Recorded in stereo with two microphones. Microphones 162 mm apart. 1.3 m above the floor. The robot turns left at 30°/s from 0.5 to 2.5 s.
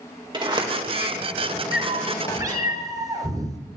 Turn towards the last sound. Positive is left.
turn(degrees=-25)  # may be behind; listen again after turning